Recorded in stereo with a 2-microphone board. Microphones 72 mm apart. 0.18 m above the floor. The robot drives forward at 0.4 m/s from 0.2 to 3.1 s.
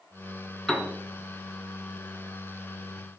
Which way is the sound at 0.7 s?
5° left (ahead or behind).